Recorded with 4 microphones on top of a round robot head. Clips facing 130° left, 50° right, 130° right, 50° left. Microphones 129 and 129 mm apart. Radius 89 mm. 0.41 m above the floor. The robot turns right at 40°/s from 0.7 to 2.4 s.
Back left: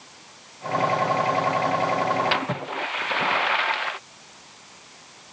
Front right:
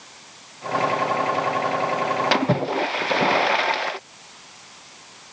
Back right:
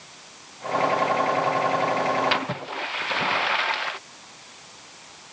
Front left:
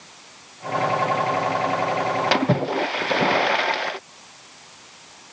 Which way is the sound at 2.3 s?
Straight ahead.